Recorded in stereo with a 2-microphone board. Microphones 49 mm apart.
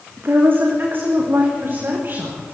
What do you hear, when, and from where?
0.2 s a woman speaking: 45° right (ahead or behind), 7.5 m; by 2.5 s 40° right (ahead or behind), 9.5 m